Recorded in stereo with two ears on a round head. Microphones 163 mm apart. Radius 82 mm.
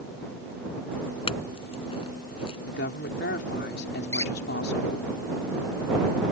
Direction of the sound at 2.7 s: 60° left (ahead or behind).